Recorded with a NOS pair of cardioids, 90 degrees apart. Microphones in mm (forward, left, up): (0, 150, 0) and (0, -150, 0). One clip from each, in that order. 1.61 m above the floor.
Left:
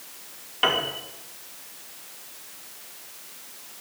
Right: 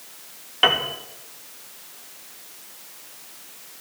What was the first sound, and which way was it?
A piano, 25° right.